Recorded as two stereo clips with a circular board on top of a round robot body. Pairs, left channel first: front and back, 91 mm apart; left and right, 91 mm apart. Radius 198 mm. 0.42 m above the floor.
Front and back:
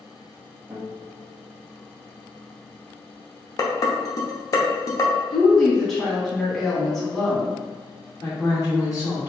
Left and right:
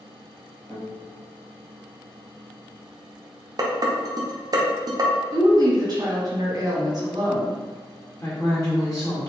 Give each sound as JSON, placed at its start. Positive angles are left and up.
{"t": 0.7, "sound": "a guitar", "azimuth_deg": 125, "distance_m": 1.4}
{"t": 3.6, "sound": "dishes clattering", "azimuth_deg": -50, "distance_m": 0.6}
{"t": 5.3, "sound": "a woman speaking", "azimuth_deg": -85, "distance_m": 1.4}
{"t": 8.2, "sound": "a woman speaking", "azimuth_deg": 35, "distance_m": 2.0}